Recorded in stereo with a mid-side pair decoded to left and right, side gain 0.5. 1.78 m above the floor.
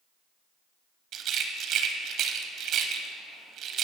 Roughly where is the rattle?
Ahead right.